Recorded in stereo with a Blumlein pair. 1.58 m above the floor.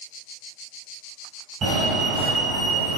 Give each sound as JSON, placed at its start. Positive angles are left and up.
{"t": 1.6, "sound": "a fire alarm", "azimuth_deg": -30, "distance_m": 1.5}